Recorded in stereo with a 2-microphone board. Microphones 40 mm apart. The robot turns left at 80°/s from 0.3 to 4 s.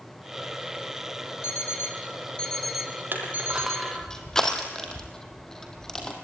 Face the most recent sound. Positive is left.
turn(degrees=15)  # may be behind; listen again after turning